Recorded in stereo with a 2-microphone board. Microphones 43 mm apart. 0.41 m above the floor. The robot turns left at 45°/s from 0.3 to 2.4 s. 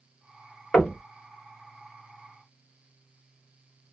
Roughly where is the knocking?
Centre.